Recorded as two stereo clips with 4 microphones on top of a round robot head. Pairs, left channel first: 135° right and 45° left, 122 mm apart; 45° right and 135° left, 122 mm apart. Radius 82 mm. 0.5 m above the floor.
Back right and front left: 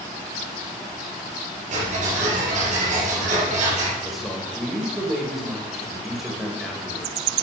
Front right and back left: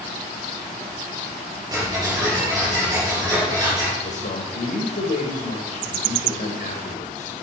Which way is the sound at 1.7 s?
75° left.